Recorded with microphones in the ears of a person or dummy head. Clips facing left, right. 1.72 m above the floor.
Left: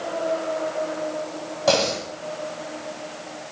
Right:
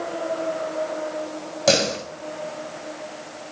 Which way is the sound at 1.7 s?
35° right (ahead or behind).